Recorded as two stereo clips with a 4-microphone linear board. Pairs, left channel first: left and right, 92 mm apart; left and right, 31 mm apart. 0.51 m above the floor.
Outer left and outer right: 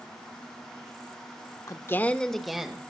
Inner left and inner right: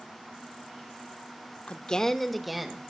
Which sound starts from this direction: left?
A woman speaking, at 1.7 s.